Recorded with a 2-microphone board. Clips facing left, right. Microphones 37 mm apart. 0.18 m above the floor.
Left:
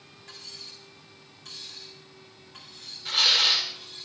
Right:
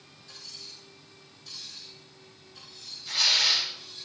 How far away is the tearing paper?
About 7 m.